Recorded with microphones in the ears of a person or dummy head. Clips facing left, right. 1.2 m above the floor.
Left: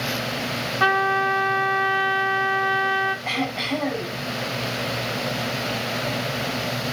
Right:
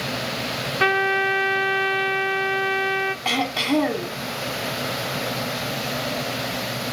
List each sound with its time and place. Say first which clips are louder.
0.8 s a trumpet: right 1 dB; 25° right (ahead or behind), 1.4 m
3.2 s throat clearing: right 3 dB; 80° right, 2.5 m